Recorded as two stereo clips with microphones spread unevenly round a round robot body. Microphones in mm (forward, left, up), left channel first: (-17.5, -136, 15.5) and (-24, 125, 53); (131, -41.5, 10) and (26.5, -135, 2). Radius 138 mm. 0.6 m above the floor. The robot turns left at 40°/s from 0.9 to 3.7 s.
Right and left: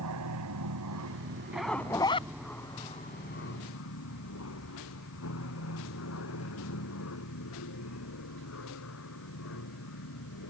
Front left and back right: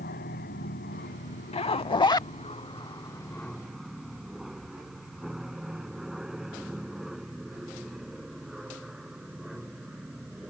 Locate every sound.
0.0 s an aircraft: 65° left; by 10.5 s 55° right
1.5 s a zipper: 15° left; by 2.3 s 20° right